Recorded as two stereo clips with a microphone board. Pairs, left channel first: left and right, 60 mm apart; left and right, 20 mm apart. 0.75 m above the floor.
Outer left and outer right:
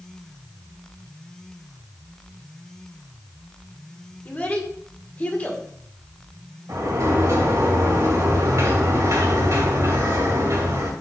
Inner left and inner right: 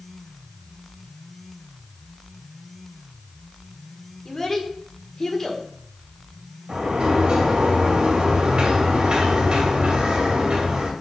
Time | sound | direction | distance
4.2 | a child speaking | 25° left (ahead or behind) | 1.8 m
6.7 | a sliding door | 55° right (ahead or behind) | 2 m